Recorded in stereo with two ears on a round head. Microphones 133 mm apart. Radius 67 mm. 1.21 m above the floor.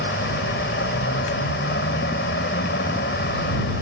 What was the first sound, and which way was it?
A vehicle, 85° left.